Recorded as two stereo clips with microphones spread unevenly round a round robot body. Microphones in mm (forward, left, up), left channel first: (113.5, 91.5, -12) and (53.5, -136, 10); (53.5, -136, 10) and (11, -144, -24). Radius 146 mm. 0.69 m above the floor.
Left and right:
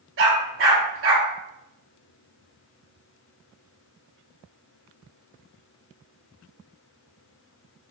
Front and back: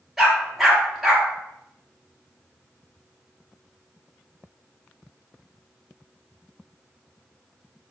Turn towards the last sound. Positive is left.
turn(degrees=-75)